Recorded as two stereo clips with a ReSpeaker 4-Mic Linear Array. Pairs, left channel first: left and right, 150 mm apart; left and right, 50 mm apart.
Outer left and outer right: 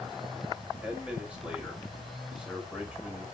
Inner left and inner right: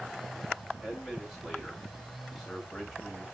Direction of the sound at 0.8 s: 5° right (ahead or behind).